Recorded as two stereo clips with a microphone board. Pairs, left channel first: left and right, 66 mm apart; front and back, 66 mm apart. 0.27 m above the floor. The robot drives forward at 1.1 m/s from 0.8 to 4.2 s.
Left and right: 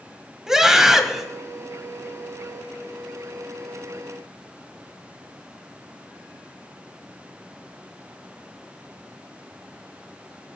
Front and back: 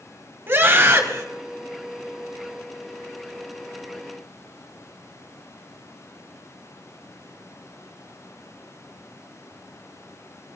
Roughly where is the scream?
Behind.